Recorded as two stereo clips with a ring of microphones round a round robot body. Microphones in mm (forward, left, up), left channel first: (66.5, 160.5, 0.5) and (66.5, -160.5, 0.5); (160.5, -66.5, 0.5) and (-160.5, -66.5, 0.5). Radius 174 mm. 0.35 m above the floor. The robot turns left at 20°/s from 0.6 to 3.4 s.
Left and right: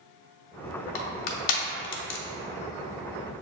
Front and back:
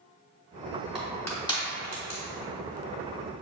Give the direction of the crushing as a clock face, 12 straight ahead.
9 o'clock.